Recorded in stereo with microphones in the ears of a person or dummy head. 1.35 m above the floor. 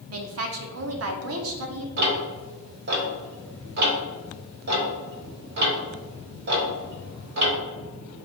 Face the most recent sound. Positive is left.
turn(degrees=-55)  # may be behind; listen again after turning